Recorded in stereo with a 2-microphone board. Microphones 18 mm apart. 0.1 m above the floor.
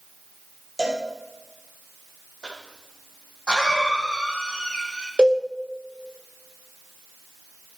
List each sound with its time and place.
0.8 s a cowbell: 20° left (ahead or behind), 3 m
2.4 s a cough: 50° left (ahead or behind), 4.5 m
5.2 s a cowbell: 70° right (ahead or behind), 2 m